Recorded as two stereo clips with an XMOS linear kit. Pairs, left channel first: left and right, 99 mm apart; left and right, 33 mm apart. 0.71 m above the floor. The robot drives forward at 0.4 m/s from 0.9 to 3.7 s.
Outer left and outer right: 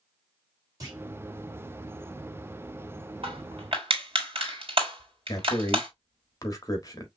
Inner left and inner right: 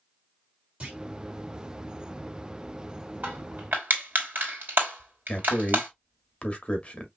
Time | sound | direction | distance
0.8 | a clunk | 40° right (ahead or behind) | 2.5 m
3.2 | crushing | 70° right (ahead or behind) | 2.5 m
5.3 | a man speaking | 35° left (ahead or behind) | 1.4 m